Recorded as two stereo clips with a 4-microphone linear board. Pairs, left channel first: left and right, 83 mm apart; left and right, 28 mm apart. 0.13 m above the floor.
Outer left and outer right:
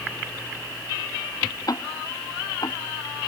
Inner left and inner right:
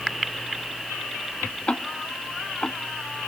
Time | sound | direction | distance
1.7 | ticking | 45° left (ahead or behind) | ?